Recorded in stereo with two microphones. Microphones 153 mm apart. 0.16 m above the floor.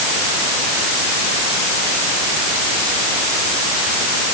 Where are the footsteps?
No footsteps in this recording.